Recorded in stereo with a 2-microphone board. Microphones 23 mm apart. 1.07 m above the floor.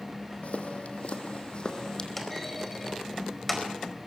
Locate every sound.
0.4 s footsteps: 65° left (ahead or behind), 2.5 m; by 2.1 s 30° left (ahead or behind), 2.5 m
2.2 s a clunk: 10° left (ahead or behind), 4.5 m